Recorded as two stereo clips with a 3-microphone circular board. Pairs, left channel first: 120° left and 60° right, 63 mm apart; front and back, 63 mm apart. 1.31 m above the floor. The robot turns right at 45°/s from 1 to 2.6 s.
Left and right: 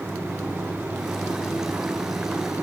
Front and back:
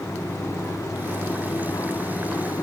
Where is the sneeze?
I don't hear a sneeze.